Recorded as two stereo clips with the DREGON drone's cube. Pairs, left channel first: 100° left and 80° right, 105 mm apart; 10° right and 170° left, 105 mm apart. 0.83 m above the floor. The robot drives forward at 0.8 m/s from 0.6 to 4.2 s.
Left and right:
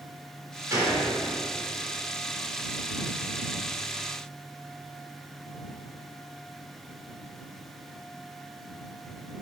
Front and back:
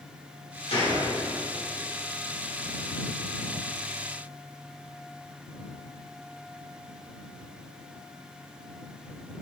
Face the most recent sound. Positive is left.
turn(degrees=-105)